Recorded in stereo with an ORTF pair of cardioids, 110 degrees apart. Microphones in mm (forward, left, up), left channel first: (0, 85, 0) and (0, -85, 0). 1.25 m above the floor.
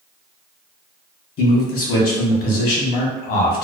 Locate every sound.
1.4 s a man speaking: 70° left, 1.2 m